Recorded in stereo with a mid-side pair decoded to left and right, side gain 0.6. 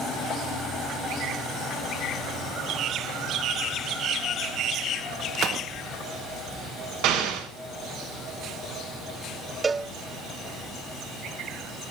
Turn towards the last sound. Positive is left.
turn(degrees=-20)